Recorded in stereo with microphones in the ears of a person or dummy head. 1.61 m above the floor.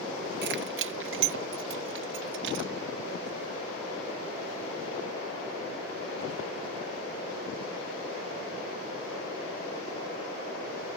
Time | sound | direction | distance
0.4 | keys jangling | 60° right (ahead or behind) | ?